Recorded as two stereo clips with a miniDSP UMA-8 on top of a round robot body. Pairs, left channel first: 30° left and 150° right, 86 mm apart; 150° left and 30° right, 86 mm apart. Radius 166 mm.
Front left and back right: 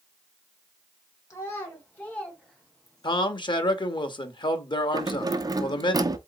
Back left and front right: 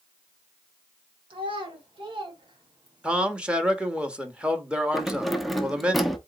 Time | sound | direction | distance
1.3 | a child speaking | 25° right | 1.4 m
3.0 | a man speaking | 50° left | 1.1 m
4.9 | keys jangling | 120° right | 0.9 m